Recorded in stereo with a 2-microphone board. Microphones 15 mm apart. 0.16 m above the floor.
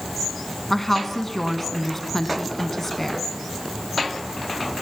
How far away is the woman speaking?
About 1.6 m.